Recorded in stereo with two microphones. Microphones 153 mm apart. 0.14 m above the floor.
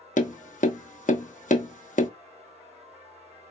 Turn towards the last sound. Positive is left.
turn(degrees=55)  # may be behind; listen again after turning